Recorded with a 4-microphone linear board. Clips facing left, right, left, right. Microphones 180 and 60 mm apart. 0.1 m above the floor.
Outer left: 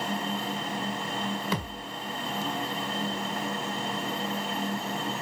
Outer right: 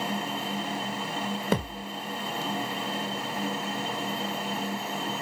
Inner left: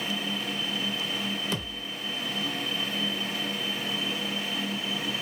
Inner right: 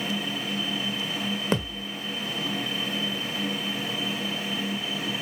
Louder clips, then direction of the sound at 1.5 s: Outer right 5 dB, inner right 6 dB; 50° right (ahead or behind).